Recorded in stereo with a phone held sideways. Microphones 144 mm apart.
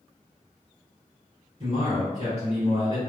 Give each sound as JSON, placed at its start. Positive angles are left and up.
{"t": 1.6, "sound": "a man speaking", "side_deg": -35, "distance_m": 1.6}